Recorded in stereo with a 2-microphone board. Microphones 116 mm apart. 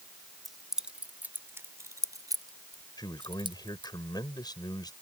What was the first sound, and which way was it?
Keys jangling, centre (ahead or behind).